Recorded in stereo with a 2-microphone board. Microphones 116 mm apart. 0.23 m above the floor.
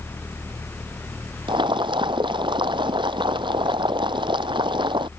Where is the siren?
I don't hear a siren.